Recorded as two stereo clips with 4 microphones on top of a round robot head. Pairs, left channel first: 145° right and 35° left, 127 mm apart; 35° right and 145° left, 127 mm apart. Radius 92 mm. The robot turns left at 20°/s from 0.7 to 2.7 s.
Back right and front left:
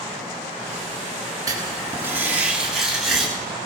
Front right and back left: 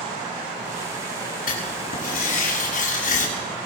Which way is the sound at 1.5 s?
25° right.